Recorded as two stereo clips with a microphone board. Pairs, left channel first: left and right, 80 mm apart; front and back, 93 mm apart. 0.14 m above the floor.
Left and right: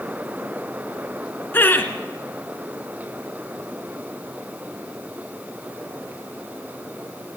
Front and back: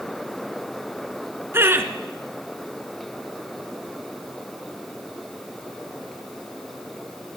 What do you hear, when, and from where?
1.5 s laughter: 135° left, 1.4 m